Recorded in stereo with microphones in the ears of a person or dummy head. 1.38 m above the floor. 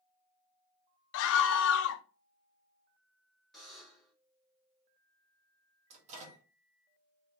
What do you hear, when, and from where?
1.1 s a scream: 75° left (ahead or behind), 0.5 m
3.5 s a buzzer: 5° left (ahead or behind), 1.6 m
5.9 s a microwave: 35° right (ahead or behind), 1.2 m